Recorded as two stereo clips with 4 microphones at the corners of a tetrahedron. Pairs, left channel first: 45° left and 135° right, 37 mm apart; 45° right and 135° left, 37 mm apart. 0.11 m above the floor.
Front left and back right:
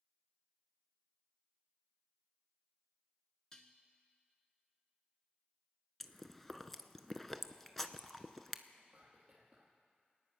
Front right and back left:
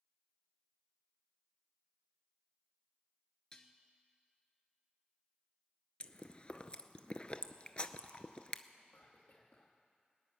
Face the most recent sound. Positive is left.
turn(degrees=-55)